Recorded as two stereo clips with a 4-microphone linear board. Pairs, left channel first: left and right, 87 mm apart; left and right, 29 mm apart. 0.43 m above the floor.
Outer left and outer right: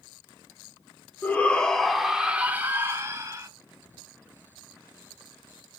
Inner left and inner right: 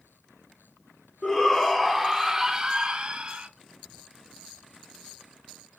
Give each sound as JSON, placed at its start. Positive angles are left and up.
{"t": 1.2, "sound": "a shout", "side_deg": 20, "distance_m": 0.8}